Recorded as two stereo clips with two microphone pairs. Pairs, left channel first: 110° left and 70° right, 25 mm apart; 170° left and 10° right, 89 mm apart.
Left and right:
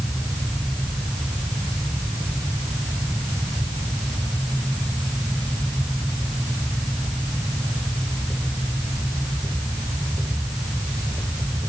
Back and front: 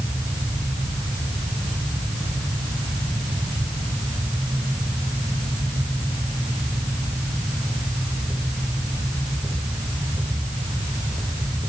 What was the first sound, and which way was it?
Only background noise.